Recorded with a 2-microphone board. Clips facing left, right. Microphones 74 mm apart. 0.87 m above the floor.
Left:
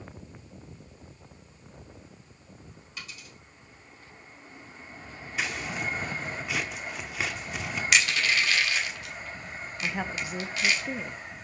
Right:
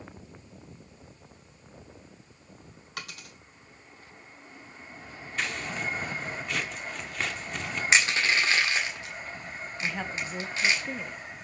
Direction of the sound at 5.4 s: 5° left (ahead or behind).